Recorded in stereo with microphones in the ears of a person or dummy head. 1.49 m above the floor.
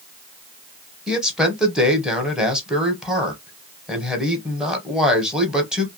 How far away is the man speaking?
About 0.9 m.